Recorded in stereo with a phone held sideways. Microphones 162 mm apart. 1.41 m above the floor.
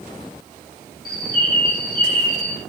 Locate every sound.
1.1 s a bird: 70° left (ahead or behind), 2.5 m